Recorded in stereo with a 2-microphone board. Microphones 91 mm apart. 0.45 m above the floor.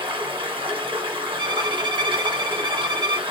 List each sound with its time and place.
0.0 s running water: 75° right (ahead or behind), 4.5 m
1.4 s a violin: 55° right (ahead or behind), 1.1 m